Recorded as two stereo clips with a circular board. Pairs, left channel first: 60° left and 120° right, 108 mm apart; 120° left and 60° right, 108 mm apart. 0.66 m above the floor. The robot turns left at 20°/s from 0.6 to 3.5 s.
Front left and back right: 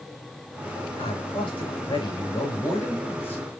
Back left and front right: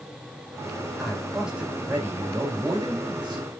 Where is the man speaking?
35° left, 4 m; by 3.4 s 15° right, 4 m.